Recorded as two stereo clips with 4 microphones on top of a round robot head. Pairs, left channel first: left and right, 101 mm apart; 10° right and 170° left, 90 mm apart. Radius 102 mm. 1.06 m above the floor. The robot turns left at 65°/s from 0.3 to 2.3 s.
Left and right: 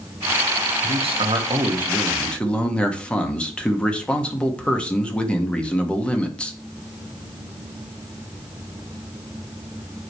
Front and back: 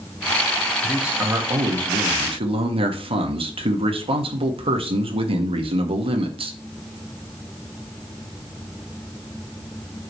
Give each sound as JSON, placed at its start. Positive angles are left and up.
{"t": 0.8, "sound": "a man speaking", "azimuth_deg": -95, "distance_m": 1.8}